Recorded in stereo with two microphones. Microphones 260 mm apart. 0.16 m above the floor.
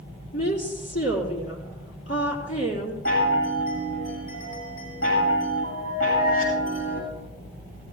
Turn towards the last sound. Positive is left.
turn(degrees=60)  # may be behind; listen again after turning